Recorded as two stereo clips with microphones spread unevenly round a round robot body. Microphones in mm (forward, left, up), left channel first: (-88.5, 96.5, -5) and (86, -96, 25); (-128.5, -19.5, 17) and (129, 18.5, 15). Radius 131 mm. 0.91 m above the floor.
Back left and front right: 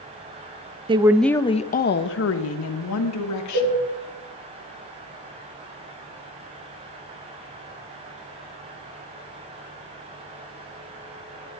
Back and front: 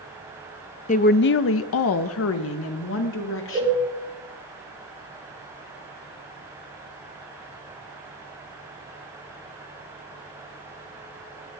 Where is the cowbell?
55° right, 8 m.